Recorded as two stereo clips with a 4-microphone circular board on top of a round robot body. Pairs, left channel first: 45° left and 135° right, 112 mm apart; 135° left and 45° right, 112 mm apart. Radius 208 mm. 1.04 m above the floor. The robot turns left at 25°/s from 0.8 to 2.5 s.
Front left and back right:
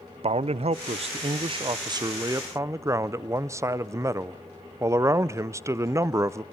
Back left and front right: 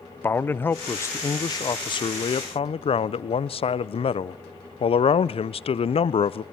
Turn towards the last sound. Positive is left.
turn(degrees=160)